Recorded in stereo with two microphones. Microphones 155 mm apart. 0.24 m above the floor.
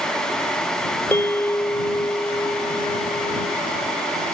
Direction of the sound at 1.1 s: 15° left (ahead or behind).